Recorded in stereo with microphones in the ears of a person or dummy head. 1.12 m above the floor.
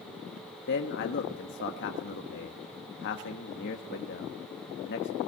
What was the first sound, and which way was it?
A man speaking, 55° left (ahead or behind).